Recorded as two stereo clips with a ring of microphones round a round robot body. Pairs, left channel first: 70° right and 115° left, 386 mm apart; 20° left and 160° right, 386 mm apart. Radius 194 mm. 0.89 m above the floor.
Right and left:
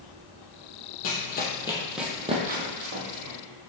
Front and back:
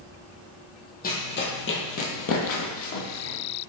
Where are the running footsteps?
35° right, 1.1 m; by 3.4 s 75° left, 1.5 m.